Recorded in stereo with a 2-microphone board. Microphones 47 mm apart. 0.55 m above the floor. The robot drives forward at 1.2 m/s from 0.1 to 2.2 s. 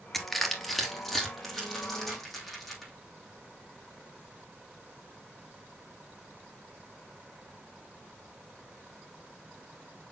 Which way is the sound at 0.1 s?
Centre (ahead or behind).